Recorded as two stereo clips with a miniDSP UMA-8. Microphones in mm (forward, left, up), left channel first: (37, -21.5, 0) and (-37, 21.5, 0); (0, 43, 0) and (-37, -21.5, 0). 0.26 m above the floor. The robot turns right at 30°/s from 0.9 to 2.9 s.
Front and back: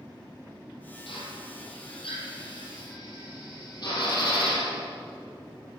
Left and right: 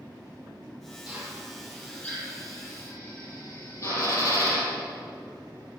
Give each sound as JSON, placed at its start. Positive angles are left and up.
{"t": 1.1, "sound": "a drill", "azimuth_deg": -45, "distance_m": 4.5}